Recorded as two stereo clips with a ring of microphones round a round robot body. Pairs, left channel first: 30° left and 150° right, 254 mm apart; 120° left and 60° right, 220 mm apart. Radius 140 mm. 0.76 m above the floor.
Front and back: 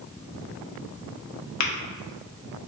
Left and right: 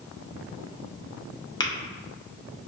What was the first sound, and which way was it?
Tapping, 50° left.